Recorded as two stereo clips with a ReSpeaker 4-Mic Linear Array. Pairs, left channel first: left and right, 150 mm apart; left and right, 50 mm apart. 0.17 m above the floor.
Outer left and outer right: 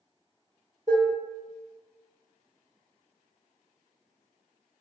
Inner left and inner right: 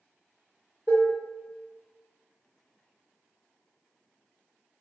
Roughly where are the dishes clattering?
Right.